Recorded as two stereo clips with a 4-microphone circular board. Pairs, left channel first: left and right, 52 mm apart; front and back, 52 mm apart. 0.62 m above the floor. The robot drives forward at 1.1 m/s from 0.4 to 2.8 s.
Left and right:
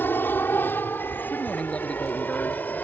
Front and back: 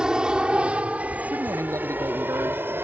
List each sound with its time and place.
0.0 s an aircraft: 110° left; by 2.9 s 140° left
1.3 s a man speaking: 155° left; by 2.8 s 160° left